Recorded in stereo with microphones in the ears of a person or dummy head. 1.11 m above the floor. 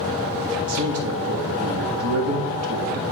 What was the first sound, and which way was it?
A man speaking, 80° right.